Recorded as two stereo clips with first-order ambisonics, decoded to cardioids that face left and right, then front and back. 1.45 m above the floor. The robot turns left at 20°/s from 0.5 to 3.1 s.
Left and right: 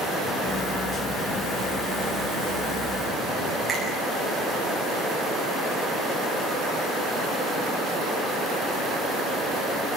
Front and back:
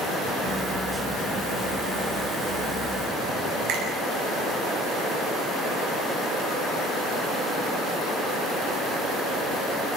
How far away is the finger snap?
About 8.5 m.